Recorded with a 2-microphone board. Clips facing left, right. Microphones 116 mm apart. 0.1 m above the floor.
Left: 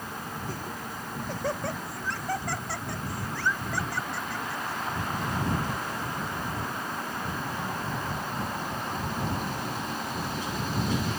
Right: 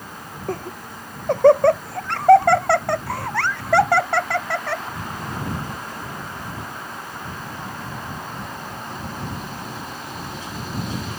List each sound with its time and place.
0.5 s laughter: 60° right (ahead or behind); by 4.8 s 75° right (ahead or behind)